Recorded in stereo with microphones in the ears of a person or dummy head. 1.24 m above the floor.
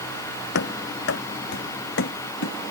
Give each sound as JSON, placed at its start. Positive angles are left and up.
{"t": 0.6, "sound": "running footsteps", "side_deg": 70}